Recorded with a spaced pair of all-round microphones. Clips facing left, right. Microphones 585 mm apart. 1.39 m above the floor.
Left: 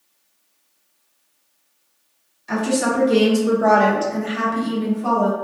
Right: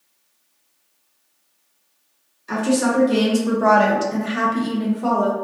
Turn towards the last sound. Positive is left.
turn(degrees=-75)  # may be behind; listen again after turning